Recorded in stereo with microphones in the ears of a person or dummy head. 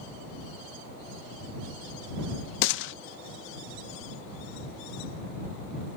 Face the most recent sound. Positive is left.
turn(degrees=70)  # may be behind; listen again after turning